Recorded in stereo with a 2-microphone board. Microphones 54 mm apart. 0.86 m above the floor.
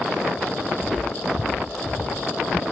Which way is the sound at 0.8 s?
Centre (ahead or behind).